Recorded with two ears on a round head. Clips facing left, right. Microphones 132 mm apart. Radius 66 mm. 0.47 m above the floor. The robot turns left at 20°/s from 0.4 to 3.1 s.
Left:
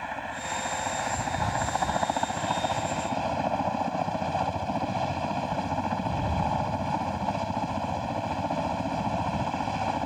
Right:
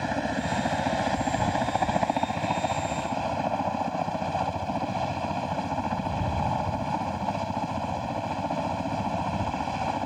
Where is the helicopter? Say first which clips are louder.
Right 7 dB; 125° right; by 10.1 s straight behind.